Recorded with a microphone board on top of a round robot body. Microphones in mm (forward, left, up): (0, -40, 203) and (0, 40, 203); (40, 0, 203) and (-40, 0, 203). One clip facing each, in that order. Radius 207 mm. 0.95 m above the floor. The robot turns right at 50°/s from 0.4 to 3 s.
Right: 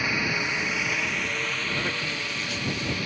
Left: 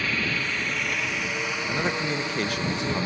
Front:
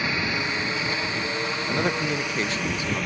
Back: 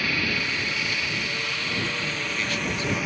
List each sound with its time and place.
0.0 s a helicopter: 35° right; by 3.1 s 95° left
1.7 s a man speaking: 15° left; by 3.1 s 85° left